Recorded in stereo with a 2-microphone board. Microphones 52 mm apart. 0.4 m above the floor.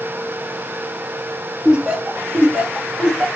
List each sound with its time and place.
1.6 s laughter: 15° right (ahead or behind), 0.9 m